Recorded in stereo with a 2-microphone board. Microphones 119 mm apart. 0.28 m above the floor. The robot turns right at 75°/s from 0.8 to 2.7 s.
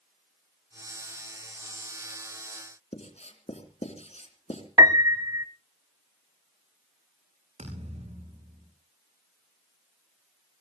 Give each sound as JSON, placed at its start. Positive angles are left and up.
{"t": 2.9, "sound": "writing", "side_deg": 70, "distance_m": 3.0}
{"t": 4.8, "sound": "a piano", "side_deg": -35, "distance_m": 0.7}
{"t": 7.6, "sound": "a thud", "side_deg": -70, "distance_m": 8.0}